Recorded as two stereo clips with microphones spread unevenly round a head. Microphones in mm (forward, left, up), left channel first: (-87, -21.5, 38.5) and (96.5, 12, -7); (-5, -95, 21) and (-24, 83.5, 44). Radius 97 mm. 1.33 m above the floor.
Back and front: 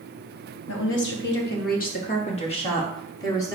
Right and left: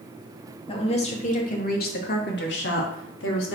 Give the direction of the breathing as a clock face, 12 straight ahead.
I don't hear breathing.